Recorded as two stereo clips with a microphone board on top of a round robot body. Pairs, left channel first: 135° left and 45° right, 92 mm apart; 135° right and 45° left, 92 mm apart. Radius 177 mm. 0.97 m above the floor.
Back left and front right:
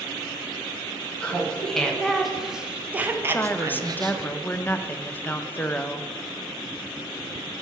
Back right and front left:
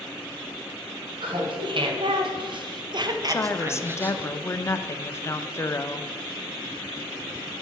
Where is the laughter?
60° left, 1.9 m; by 4.3 s 30° right, 1.1 m.